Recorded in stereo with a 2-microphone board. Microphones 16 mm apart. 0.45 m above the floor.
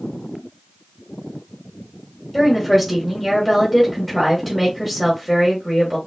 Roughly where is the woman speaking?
Centre.